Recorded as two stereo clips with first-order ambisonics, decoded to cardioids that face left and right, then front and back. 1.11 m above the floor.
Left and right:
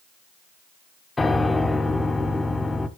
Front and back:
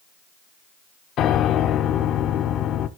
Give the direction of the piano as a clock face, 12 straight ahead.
11 o'clock.